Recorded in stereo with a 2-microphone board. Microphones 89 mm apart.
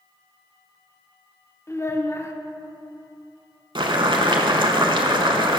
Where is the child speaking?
30° left (ahead or behind), 0.6 m.